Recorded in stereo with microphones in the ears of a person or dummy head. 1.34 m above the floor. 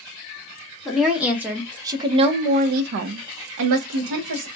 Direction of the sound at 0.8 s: 10° right (ahead or behind).